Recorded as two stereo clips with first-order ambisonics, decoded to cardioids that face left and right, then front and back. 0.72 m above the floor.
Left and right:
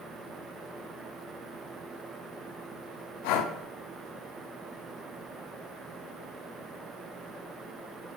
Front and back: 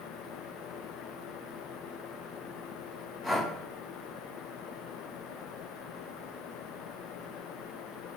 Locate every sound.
3.2 s breathing: 85° left, 0.6 m